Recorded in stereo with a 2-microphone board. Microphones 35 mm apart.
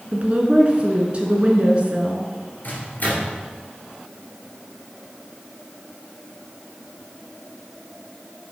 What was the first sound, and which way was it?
A woman speaking, 35° right (ahead or behind).